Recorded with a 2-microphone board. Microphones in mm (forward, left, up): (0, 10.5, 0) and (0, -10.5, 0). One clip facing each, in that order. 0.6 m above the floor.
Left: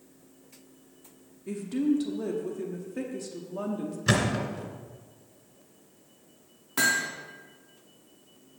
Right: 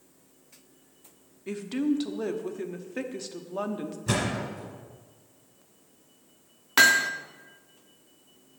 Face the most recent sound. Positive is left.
turn(degrees=-50)  # may be behind; listen again after turning